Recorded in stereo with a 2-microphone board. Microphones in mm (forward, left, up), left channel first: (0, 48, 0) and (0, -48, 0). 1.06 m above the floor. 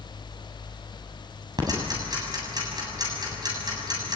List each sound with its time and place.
1.6 s ticking: 40° right (ahead or behind), 7.5 m